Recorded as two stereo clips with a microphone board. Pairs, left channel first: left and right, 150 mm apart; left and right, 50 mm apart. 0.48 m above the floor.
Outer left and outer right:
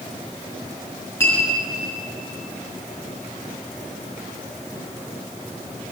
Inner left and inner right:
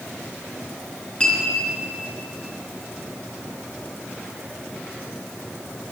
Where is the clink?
15° left (ahead or behind), 5 m.